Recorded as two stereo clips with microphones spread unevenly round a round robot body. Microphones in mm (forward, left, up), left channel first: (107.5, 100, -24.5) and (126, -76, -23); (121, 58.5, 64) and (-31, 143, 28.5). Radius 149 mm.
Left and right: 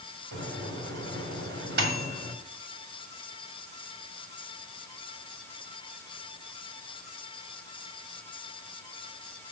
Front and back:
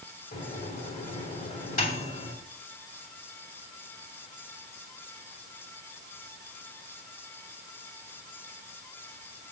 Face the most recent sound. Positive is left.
turn(degrees=-80)